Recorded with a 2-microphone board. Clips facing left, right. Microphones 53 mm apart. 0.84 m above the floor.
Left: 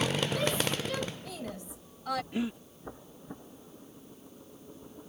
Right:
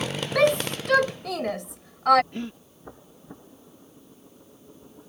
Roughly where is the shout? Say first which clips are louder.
Right 9 dB; right.